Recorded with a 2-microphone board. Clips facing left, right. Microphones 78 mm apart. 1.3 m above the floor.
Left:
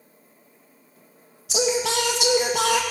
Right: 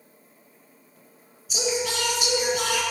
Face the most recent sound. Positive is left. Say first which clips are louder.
# left 4 dB
turn(degrees=80)